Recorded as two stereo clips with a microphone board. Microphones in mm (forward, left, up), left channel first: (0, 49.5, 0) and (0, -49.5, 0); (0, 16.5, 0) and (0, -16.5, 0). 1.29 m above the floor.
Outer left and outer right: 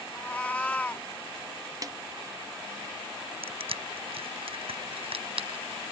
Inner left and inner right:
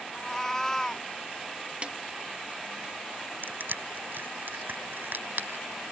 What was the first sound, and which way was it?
A cat meowing, 15° left (ahead or behind).